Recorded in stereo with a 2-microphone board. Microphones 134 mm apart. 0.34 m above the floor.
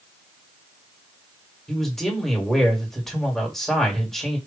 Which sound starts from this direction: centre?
A man speaking, at 1.7 s.